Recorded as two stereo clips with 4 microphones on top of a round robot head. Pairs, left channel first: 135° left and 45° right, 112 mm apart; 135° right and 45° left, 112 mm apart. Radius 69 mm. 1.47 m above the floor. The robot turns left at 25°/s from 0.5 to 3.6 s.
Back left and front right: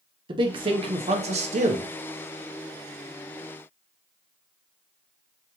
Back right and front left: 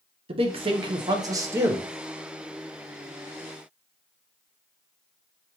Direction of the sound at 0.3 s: 5° left.